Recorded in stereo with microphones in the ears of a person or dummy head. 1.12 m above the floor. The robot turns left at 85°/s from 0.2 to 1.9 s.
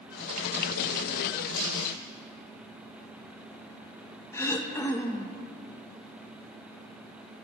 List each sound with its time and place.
1.5 s crumpling: 50° left (ahead or behind), 4.5 m; by 1.9 s 80° left, 4.5 m
4.3 s throat clearing: 10° left (ahead or behind), 0.6 m